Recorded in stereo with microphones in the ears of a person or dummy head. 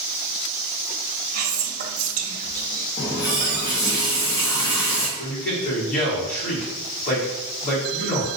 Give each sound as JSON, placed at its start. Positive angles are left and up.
{"t": 1.3, "sound": "whispering", "side_deg": -40, "distance_m": 0.6}
{"t": 3.0, "sound": "a running tap", "side_deg": 20, "distance_m": 0.8}
{"t": 5.2, "sound": "a man speaking", "side_deg": 50, "distance_m": 1.2}